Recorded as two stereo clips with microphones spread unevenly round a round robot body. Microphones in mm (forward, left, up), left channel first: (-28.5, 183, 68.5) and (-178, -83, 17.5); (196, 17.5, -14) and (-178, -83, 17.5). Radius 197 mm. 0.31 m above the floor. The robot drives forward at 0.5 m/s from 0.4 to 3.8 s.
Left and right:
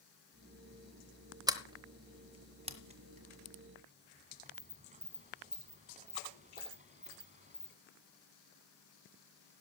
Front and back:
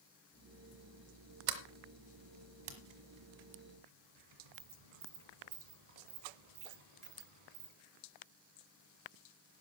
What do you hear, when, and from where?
1.5 s a sliding door: 170° left, 1.1 m; by 7.7 s 175° left, 2 m